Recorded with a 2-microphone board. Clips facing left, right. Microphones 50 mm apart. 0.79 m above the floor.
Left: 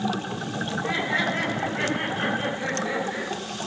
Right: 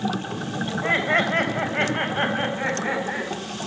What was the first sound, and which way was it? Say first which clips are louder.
Laughter: right 5 dB; 50° right (ahead or behind).